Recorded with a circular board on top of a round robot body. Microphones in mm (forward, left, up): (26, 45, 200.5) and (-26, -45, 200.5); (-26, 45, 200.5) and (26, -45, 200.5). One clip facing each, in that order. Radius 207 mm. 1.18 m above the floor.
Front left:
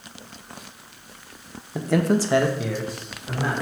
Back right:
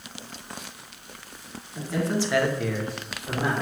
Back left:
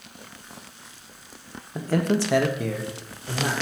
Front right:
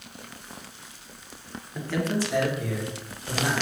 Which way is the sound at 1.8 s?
65° left.